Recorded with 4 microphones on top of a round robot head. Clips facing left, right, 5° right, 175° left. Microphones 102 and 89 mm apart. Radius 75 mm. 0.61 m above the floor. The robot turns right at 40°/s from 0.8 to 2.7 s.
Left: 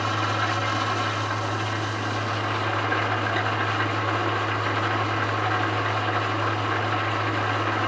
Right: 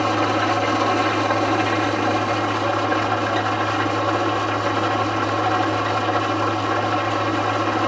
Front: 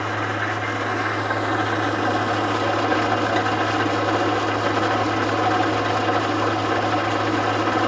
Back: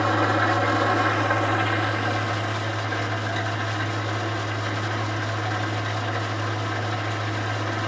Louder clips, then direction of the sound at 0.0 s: Right 7 dB, back 3 dB; 105° right.